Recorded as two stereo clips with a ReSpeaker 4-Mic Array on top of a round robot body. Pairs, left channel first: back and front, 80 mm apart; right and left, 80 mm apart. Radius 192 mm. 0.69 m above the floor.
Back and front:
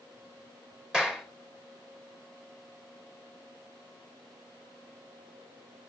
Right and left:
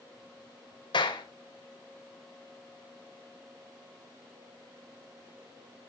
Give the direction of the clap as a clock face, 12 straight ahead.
3 o'clock.